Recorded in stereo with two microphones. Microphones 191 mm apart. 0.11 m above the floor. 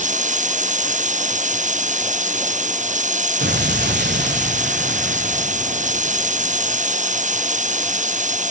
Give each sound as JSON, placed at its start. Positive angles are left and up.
{"t": 0.0, "sound": "running water", "side_deg": -40}
{"t": 3.4, "sound": "an explosion", "side_deg": -55}